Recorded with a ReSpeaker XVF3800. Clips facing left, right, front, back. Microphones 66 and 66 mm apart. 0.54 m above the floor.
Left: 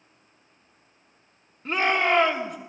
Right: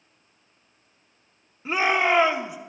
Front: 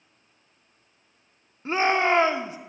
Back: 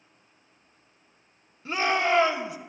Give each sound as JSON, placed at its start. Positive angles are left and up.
{"t": 1.6, "sound": "a shout", "azimuth_deg": -10, "distance_m": 0.9}